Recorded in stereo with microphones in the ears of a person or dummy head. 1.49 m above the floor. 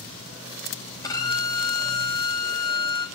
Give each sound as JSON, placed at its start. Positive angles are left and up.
{"t": 1.0, "sound": "a violin", "side_deg": 15, "distance_m": 2.5}